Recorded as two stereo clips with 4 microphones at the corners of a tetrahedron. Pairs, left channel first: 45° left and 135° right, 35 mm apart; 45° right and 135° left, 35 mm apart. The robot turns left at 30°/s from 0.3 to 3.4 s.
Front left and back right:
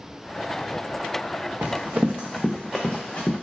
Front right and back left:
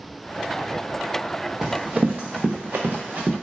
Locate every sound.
1.6 s running footsteps: 140° right, 0.7 m; by 3.3 s 90° left, 0.8 m